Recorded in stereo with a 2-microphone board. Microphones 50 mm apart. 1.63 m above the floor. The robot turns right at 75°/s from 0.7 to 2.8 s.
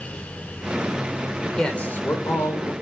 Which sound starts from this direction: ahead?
A man speaking, at 1.4 s.